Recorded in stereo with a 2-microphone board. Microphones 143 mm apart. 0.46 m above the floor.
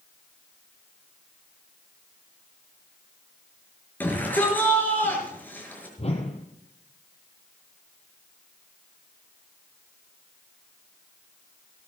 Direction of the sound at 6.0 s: 50° left (ahead or behind).